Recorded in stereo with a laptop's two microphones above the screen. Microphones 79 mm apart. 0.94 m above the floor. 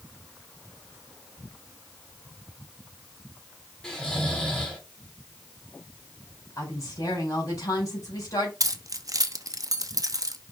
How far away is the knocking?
I don't hear knocking.